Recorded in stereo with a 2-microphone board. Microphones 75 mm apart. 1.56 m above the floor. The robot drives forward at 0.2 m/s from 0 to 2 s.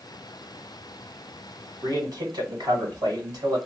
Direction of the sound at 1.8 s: 55° right (ahead or behind).